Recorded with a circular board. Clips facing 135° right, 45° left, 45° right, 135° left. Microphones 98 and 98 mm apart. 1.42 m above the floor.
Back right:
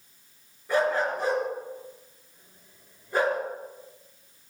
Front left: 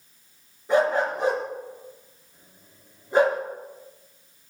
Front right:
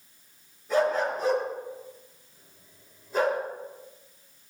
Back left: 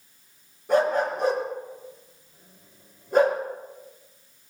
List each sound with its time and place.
0.7 s a dog barking: 115° left, 4.5 m